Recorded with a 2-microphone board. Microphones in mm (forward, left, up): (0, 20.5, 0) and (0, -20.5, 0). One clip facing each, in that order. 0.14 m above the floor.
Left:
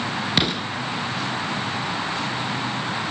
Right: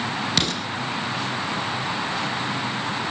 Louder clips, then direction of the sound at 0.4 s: Left 4 dB; 20° left (ahead or behind).